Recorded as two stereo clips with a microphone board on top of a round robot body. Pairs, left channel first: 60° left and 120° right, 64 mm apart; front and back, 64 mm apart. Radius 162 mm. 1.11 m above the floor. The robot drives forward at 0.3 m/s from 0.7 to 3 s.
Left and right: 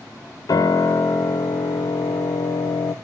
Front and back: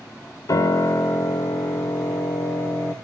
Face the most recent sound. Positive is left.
turn(degrees=75)